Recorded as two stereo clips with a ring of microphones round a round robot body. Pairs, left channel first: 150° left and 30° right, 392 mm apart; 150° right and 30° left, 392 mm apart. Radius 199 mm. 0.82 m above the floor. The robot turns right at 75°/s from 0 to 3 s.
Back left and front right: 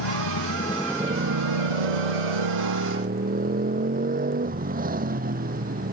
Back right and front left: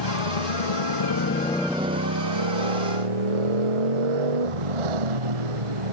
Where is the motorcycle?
175° left; by 5.9 s 40° left.